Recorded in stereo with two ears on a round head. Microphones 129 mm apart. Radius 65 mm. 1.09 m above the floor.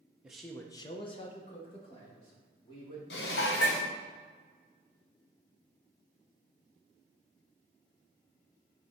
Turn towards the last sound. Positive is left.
turn(degrees=90)